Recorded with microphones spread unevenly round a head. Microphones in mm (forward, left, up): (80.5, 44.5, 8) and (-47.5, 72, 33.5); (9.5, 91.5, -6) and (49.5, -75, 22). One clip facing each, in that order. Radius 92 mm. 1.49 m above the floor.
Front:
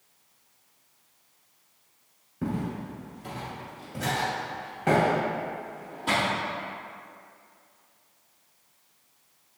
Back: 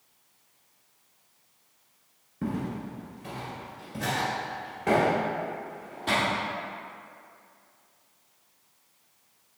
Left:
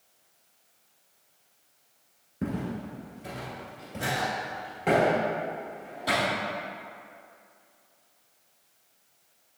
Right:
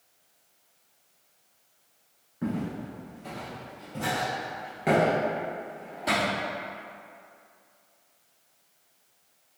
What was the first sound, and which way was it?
Footsteps, 90° left.